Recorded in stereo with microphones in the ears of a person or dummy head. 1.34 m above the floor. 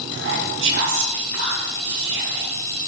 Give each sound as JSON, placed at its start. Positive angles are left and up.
{"t": 0.1, "sound": "whispering", "side_deg": -55, "distance_m": 2.0}